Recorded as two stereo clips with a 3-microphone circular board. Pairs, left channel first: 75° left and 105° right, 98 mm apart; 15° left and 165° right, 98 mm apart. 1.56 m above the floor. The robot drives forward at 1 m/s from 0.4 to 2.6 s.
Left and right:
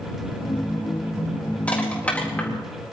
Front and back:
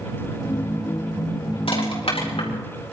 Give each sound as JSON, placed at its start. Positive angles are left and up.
{"t": 1.7, "sound": "crushing", "azimuth_deg": 0, "distance_m": 4.5}